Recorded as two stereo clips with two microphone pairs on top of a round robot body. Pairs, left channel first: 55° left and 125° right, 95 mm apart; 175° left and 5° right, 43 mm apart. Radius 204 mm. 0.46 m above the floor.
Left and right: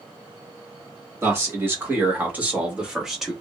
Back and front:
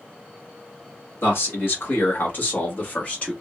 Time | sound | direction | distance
1.2 | a man speaking | straight behind | 2 m